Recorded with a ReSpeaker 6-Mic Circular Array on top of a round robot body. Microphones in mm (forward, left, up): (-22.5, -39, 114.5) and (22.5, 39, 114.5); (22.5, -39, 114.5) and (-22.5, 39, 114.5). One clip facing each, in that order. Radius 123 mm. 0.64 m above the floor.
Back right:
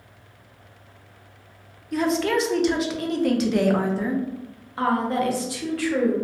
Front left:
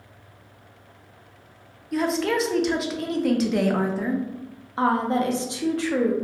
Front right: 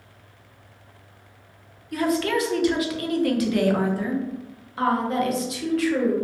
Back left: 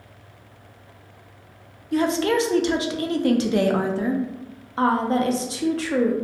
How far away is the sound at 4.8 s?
About 0.6 m.